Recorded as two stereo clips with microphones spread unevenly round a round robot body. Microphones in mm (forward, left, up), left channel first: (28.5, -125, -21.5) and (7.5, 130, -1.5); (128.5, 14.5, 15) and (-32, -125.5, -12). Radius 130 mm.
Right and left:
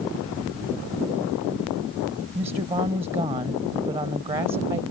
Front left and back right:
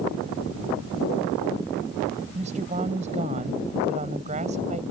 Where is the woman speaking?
165° left.